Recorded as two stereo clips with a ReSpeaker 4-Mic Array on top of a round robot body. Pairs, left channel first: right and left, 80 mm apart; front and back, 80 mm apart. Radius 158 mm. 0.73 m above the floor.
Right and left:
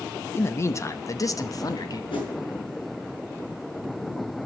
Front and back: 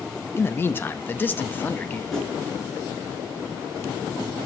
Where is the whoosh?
85° right, 6 m.